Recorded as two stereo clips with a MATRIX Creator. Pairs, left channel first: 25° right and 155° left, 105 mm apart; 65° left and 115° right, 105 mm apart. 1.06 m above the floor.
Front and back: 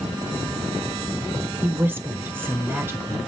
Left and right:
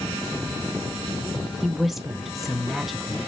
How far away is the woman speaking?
About 0.6 m.